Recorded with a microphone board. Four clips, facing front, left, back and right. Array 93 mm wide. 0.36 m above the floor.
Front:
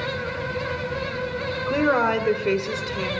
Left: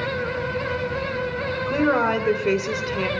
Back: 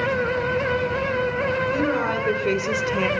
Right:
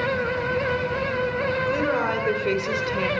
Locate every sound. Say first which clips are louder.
1.7 s a woman speaking: left 7 dB, front 2 dB; 25° left, 1.0 m; by 3.1 s 170° left, 1.0 m